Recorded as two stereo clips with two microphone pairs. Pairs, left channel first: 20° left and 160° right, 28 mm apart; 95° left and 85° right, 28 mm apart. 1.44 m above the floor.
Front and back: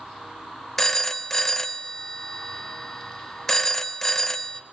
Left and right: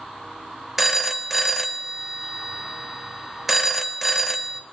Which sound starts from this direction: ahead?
A phone ringing, at 0.8 s.